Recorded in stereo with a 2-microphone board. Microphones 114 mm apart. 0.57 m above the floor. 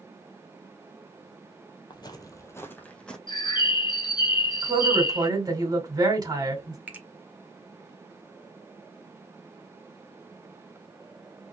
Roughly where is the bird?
Left.